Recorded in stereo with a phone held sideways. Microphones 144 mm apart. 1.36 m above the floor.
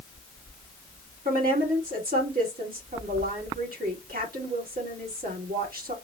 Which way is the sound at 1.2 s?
80° right.